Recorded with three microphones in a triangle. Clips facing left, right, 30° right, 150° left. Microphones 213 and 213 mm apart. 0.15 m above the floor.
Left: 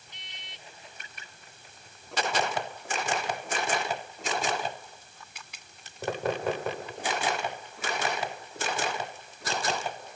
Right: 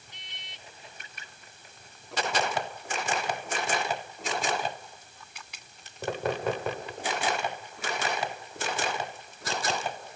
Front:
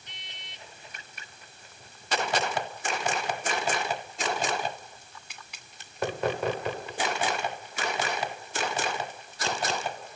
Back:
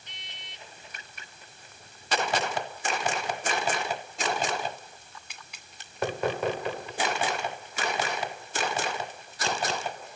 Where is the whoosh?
I don't hear a whoosh.